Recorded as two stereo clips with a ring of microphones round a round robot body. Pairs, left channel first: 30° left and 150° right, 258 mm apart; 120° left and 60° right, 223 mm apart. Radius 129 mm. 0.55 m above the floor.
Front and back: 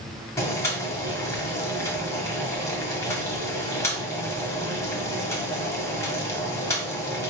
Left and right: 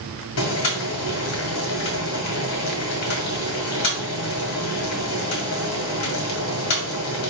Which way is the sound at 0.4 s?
110° left.